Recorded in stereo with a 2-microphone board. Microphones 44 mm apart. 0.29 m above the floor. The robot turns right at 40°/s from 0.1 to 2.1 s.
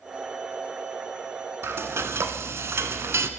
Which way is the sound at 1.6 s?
65° right (ahead or behind).